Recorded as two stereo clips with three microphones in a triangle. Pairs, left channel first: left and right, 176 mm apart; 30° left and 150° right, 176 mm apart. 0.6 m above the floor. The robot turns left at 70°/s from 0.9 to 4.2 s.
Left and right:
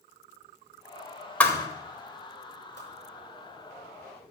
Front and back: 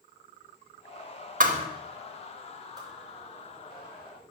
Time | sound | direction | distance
1.4 | a thud | 170° left | 0.9 m
2.8 | a whoosh | 80° right | 4 m